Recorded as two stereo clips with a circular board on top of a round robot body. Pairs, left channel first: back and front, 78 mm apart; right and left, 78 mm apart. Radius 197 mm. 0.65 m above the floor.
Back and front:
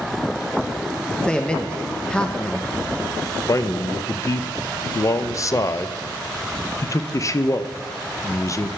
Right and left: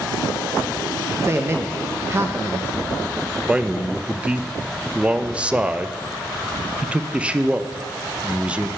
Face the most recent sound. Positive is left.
turn(degrees=160)